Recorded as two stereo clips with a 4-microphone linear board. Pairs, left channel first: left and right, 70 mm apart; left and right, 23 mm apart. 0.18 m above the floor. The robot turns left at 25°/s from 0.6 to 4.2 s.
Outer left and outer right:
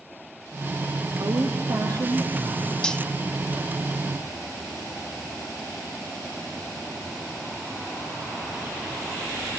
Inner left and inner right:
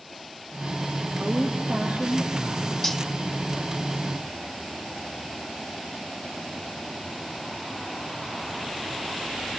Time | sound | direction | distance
1.2 | a woman speaking | 95° right | 6 m
2.8 | cutlery clinking | 10° left (ahead or behind) | 0.6 m